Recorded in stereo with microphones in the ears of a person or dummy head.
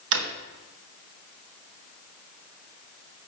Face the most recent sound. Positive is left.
turn(degrees=-65)  # may be behind; listen again after turning